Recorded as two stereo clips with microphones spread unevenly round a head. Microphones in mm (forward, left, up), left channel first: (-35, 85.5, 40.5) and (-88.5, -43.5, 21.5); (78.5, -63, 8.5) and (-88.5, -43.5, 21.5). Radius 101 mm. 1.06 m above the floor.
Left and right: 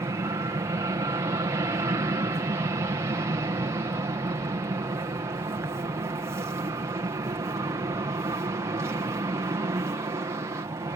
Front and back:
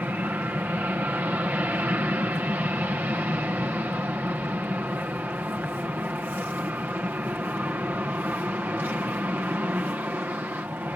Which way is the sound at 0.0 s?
115° right.